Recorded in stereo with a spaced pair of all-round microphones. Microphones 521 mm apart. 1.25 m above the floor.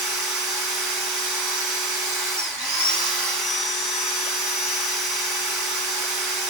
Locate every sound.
0.0 s a machine running: 35° right (ahead or behind), 0.8 m